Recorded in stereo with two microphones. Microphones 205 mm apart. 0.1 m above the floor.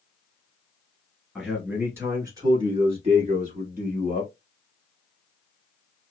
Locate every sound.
1.4 s a man speaking: centre (ahead or behind), 1.6 m; by 4.3 s 40° right (ahead or behind), 1.8 m